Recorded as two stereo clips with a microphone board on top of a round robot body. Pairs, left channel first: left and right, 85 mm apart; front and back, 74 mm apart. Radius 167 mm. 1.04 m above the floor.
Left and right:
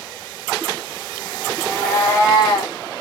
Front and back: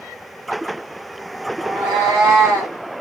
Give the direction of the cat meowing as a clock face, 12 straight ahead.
6 o'clock.